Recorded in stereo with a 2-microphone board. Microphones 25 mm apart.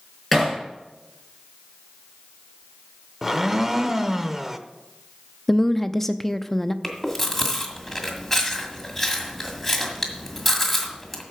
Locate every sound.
0.3 s hammering: 5° left (ahead or behind), 6 m
3.2 s a blender: 10° right (ahead or behind), 0.7 m
5.5 s a woman speaking: 10° left (ahead or behind), 0.5 m
6.8 s chewing: 5° left (ahead or behind), 1.9 m